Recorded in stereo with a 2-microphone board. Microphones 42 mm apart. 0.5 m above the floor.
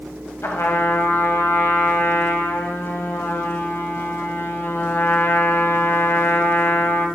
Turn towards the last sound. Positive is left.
turn(degrees=80)